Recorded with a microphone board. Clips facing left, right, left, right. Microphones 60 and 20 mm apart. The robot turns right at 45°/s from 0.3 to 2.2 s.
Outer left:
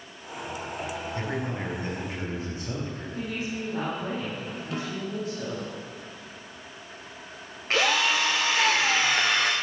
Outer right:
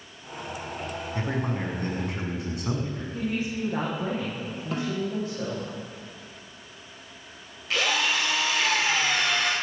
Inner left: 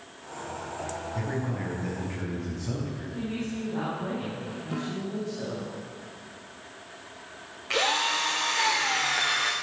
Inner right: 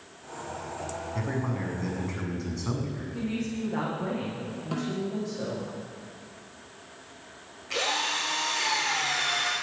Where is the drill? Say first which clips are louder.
Outer left 2 dB, inner left 3 dB; 40° left (ahead or behind), 4 m.